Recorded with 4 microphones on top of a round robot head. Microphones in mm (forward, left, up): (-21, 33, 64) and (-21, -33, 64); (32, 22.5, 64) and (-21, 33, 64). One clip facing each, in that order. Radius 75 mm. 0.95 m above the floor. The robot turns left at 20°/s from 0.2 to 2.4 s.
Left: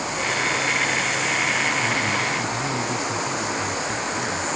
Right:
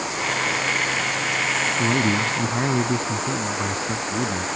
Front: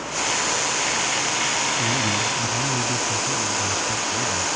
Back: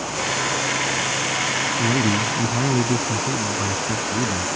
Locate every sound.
1.8 s a man speaking: 130° right; by 4.5 s 140° right